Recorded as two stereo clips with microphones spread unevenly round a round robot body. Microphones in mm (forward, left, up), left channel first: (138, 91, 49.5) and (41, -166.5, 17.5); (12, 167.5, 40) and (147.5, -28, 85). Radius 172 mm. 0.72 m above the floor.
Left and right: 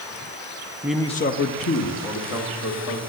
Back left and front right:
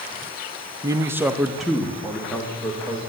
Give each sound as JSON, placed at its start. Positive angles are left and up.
{"t": 0.8, "sound": "a man speaking", "azimuth_deg": -135, "distance_m": 0.7}